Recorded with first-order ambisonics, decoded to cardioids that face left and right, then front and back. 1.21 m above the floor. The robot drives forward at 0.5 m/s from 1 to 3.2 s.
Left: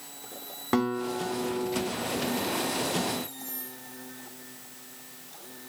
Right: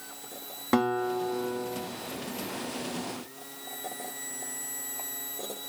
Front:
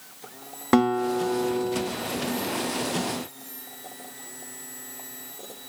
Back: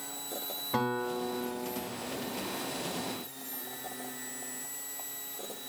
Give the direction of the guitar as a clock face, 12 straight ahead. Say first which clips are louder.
Right 2 dB, front 10 dB; 12 o'clock.